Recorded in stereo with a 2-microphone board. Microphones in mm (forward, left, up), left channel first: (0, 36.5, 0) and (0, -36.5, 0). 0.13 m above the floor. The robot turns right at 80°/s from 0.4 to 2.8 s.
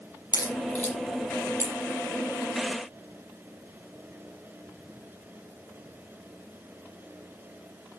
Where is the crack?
55° left (ahead or behind), 5 m; by 1.8 s 45° right (ahead or behind), 5 m.